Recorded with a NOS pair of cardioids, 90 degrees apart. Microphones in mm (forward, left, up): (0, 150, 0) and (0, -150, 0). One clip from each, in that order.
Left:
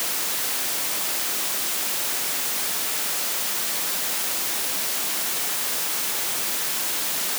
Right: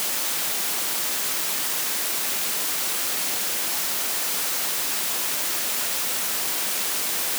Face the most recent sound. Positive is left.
No sound to turn to.